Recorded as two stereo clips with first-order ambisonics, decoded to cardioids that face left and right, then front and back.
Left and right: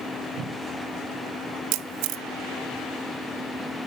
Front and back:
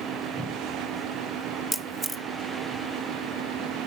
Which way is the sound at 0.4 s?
90° right.